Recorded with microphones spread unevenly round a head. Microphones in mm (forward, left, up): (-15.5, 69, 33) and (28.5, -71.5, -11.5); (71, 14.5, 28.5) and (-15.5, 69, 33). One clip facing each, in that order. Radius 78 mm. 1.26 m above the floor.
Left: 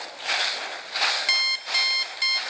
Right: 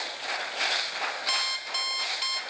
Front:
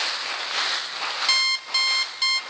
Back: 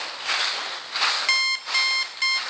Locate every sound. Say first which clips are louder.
1.3 s an alarm clock: even, back 1 dB; 40° left, 1.5 m